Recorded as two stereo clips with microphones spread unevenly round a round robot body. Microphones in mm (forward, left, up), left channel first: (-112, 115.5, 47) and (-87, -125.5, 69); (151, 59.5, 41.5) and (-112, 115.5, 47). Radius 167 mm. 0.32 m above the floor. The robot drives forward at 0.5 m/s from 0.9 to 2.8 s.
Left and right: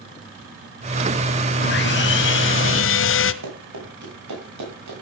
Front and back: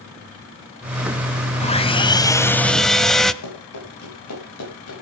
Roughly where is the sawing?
Ahead left.